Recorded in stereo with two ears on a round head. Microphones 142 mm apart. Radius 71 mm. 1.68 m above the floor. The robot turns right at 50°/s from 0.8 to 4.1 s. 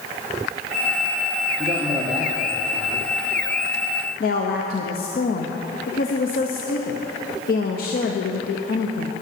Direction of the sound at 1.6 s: 35° right.